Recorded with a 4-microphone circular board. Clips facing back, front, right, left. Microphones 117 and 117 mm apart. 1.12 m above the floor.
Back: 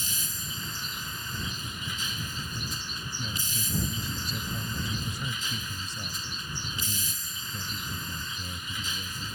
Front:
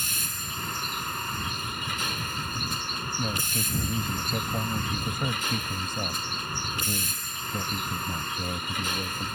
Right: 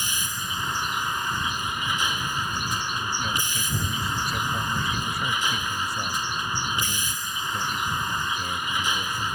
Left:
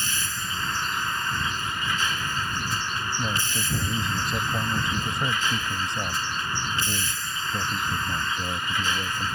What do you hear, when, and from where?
0.0 s a vehicle: 15° right
3.2 s a man speaking: 25° left